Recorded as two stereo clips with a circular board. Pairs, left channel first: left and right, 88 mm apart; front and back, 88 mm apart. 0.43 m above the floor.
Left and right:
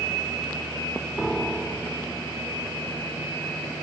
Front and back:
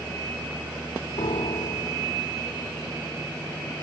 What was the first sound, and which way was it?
A piano, 5° left.